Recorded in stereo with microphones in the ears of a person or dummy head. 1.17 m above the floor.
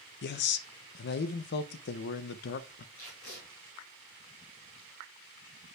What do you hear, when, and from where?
0.2 s a man speaking: 60° left (ahead or behind), 0.5 m
3.0 s tape being pulled: 65° left (ahead or behind), 4 m